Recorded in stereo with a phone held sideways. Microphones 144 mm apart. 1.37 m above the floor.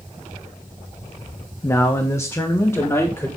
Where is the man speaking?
20° left (ahead or behind), 0.8 m; by 3.3 s 15° left (ahead or behind), 2.5 m.